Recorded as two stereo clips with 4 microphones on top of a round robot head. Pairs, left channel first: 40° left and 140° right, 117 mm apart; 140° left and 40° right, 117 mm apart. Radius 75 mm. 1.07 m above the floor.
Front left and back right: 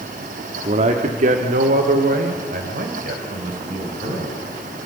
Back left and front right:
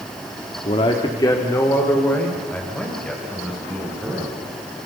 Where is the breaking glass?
I don't hear breaking glass.